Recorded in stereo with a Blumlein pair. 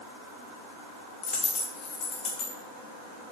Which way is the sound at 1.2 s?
30° left.